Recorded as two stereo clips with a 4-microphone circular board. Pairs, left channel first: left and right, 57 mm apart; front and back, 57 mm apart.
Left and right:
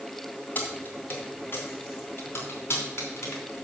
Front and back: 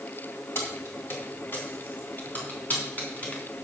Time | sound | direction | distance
0.6 | keys jangling | 40° left | 2.5 m